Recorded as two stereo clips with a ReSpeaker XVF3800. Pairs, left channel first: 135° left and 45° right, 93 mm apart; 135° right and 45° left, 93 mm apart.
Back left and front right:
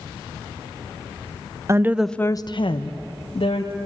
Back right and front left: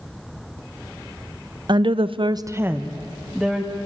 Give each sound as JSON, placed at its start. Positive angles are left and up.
{"t": 1.7, "sound": "a woman speaking", "azimuth_deg": 15, "distance_m": 0.8}